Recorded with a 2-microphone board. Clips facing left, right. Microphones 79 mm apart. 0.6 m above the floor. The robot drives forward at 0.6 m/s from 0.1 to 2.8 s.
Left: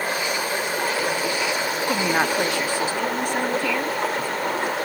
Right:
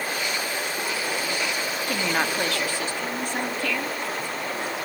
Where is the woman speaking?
20° left (ahead or behind), 0.6 m; by 4.0 s 15° left (ahead or behind), 0.9 m.